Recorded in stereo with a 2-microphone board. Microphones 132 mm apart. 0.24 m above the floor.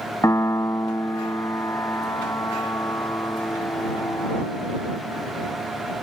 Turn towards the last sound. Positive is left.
turn(degrees=25)  # may be behind; listen again after turning